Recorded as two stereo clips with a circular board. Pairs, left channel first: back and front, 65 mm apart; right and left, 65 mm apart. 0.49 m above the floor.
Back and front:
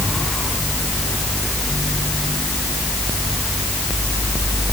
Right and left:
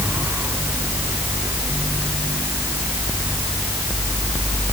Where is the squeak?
No squeak in this recording.